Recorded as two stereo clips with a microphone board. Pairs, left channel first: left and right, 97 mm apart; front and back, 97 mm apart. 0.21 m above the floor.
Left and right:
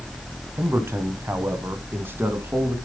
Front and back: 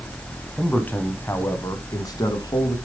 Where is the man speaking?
70° right, 1.1 m; by 2.8 s 25° right, 1.8 m.